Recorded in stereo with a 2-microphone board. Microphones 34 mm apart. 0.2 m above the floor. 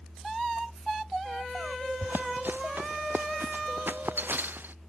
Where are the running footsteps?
75° right (ahead or behind).